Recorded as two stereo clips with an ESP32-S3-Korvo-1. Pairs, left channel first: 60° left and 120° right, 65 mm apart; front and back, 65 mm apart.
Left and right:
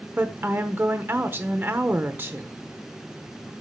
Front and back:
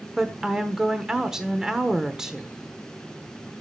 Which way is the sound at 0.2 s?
105° right.